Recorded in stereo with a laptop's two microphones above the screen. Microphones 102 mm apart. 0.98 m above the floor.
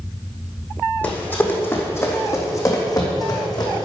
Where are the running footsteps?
15° left (ahead or behind), 3 m; by 3.9 s 45° left (ahead or behind), 3.5 m.